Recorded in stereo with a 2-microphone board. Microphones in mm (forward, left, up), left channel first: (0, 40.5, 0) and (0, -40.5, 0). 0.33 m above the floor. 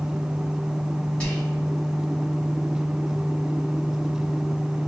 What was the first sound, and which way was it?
Whispering, 15° left (ahead or behind).